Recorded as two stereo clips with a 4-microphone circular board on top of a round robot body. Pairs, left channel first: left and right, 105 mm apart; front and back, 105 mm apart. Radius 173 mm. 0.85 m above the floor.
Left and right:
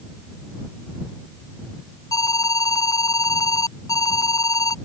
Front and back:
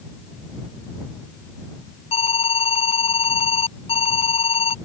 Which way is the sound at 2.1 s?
30° left.